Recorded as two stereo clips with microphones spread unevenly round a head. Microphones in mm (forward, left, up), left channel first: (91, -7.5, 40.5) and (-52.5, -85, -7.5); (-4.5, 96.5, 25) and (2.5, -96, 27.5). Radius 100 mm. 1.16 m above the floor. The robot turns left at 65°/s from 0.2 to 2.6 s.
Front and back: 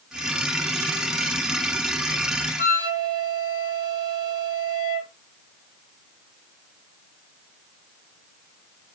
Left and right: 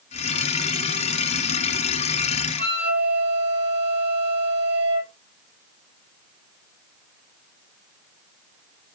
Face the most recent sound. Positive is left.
turn(degrees=-5)